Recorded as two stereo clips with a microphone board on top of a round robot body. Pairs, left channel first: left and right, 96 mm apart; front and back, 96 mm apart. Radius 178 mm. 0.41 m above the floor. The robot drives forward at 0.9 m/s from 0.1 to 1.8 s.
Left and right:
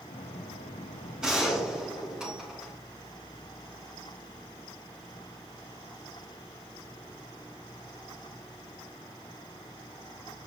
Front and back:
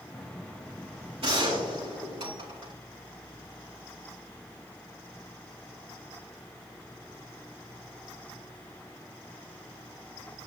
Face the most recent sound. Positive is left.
turn(degrees=-175)